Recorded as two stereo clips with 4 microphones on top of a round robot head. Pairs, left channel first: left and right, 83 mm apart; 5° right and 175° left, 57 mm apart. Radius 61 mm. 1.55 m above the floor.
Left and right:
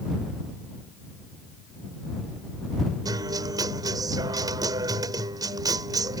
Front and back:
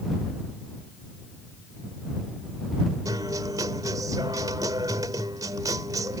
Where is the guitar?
135° right.